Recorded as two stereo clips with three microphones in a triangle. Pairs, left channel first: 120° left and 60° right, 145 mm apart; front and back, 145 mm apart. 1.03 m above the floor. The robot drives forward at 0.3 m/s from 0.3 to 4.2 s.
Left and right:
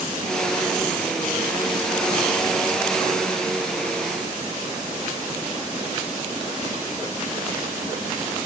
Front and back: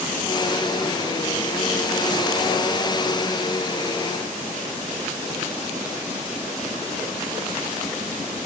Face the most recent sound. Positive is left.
No sound to turn to.